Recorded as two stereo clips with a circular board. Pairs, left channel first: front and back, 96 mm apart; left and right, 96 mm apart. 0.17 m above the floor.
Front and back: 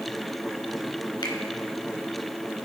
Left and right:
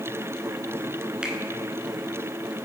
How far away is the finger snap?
About 1.8 m.